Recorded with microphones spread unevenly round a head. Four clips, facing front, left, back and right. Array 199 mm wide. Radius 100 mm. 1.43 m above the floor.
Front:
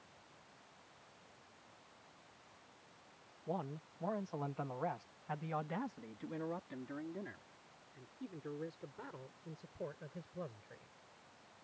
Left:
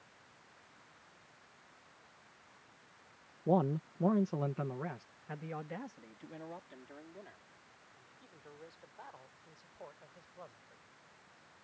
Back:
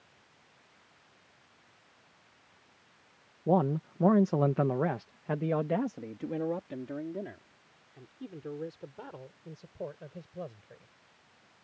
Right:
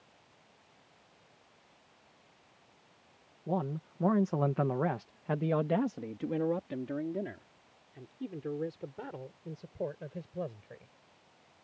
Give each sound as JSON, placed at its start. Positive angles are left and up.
{"t": 3.5, "sound": "a man speaking", "azimuth_deg": 160}